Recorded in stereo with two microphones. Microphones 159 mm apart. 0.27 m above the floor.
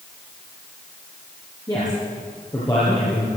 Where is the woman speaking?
25° left (ahead or behind), 6 m.